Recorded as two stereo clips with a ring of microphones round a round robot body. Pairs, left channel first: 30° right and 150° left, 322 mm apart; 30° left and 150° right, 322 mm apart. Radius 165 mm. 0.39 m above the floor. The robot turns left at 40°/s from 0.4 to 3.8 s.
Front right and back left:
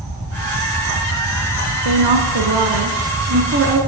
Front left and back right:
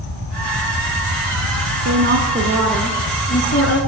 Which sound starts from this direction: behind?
A woman speaking, at 1.9 s.